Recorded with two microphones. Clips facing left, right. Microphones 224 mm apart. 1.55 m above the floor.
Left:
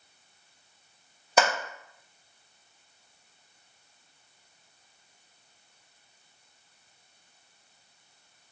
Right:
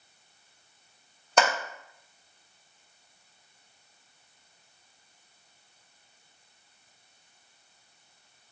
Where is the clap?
5° left (ahead or behind), 1.0 m.